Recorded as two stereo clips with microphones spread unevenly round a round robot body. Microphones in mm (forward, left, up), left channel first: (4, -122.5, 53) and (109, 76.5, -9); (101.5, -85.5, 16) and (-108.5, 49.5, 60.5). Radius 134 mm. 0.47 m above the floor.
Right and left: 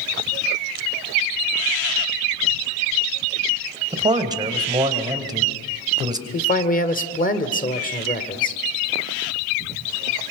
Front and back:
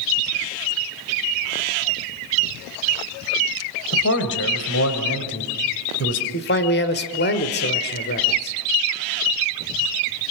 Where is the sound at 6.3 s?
60° right, 1.9 m.